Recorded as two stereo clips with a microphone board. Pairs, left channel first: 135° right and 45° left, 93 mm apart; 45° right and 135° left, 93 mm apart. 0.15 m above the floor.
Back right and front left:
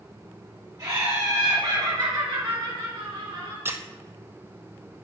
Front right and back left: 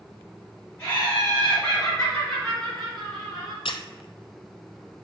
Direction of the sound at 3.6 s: 20° right.